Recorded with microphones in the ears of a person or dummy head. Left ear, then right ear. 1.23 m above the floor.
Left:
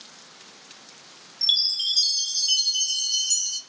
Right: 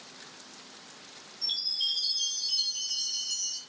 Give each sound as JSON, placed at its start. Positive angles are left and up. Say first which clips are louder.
{"t": 1.4, "sound": "a chime", "louder": "left 8 dB", "side_deg": 70, "distance_m": 0.8}